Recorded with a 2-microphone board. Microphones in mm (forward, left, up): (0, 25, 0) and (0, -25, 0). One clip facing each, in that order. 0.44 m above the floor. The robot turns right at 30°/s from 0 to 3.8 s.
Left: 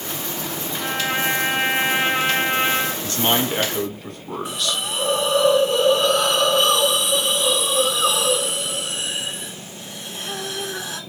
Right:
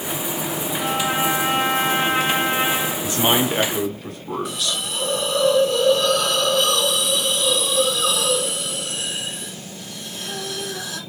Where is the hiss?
30° left (ahead or behind), 1.0 m.